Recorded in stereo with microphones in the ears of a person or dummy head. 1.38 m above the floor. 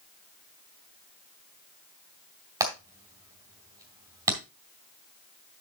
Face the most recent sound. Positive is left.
turn(degrees=-20)  # may be behind; listen again after turning